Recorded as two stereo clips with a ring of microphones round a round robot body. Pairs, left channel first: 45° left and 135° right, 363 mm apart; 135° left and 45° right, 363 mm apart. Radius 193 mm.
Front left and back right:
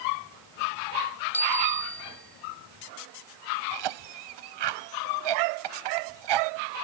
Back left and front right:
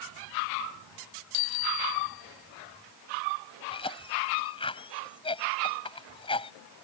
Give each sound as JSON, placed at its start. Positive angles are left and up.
{"t": 1.3, "sound": "a bicycle bell", "azimuth_deg": 130}
{"t": 3.7, "sound": "a cough", "azimuth_deg": -150}